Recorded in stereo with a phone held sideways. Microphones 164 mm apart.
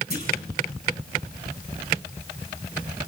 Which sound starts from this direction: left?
A clunk, at 0.1 s.